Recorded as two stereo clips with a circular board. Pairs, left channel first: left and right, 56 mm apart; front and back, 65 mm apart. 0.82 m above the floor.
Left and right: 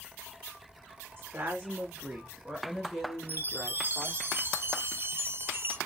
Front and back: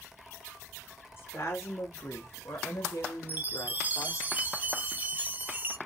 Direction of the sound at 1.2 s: 40° right.